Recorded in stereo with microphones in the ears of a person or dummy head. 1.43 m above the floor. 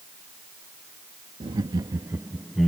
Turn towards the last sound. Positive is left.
turn(degrees=-5)  # may be behind; listen again after turning